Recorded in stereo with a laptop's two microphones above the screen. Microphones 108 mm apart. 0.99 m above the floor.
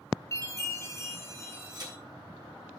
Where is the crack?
45° right (ahead or behind), 3 m.